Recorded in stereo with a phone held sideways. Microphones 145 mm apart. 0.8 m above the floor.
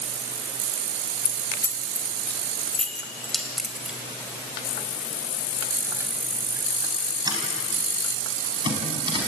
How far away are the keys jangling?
About 3 m.